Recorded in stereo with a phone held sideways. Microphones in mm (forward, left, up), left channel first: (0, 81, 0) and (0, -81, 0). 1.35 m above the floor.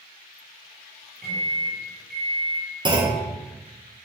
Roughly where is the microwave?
Right.